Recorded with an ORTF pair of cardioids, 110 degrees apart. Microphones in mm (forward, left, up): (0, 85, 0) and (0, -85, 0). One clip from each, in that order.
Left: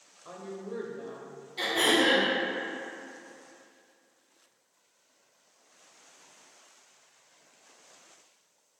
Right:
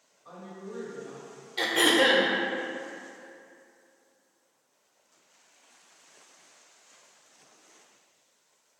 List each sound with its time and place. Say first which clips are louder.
0.2 s a woman speaking: left 3 dB; 45° left, 0.9 m
1.6 s throat clearing: right 2 dB; 35° right, 0.6 m